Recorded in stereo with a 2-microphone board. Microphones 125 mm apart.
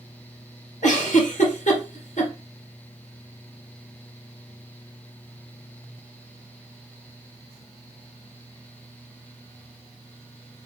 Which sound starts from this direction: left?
A giggle, at 0.8 s.